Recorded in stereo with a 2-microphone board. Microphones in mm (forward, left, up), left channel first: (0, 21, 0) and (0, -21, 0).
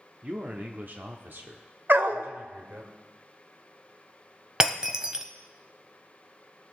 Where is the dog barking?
55° right (ahead or behind), 0.8 m.